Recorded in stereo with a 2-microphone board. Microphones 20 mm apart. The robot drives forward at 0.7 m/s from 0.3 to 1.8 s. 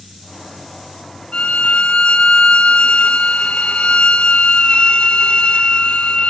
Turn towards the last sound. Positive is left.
turn(degrees=60)  # may be behind; listen again after turning